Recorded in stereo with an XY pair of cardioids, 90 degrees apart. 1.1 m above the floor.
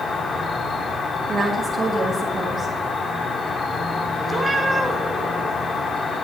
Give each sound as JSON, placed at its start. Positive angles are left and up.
{"t": 0.0, "sound": "an insect", "azimuth_deg": 60, "distance_m": 1.3}
{"t": 1.3, "sound": "a woman speaking", "azimuth_deg": -55, "distance_m": 1.4}
{"t": 4.3, "sound": "a cat meowing", "azimuth_deg": -20, "distance_m": 1.4}